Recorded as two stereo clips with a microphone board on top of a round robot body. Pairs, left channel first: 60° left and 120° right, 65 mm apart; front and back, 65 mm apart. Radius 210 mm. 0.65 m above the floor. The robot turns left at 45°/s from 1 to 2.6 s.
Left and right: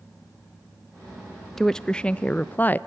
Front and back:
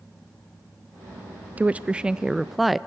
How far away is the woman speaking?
About 0.6 m.